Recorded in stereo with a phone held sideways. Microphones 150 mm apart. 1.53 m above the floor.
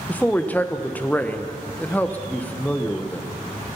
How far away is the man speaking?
About 0.9 m.